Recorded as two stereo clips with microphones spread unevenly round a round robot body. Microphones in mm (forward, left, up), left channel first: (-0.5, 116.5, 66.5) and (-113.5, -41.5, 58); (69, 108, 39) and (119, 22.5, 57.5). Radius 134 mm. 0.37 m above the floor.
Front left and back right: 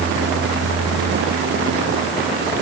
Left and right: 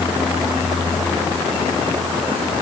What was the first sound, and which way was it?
Only background noise.